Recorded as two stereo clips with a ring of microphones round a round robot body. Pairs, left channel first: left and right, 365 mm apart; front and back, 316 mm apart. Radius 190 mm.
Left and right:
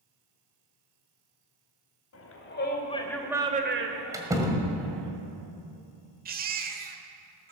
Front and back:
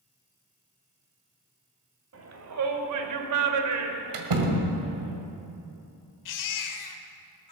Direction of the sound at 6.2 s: 25° right.